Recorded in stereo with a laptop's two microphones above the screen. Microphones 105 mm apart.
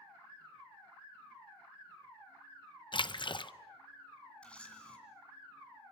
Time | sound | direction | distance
2.9 | a splash | 50° left (ahead or behind) | 0.6 m
4.4 | a camera shutter | 10° left (ahead or behind) | 2.5 m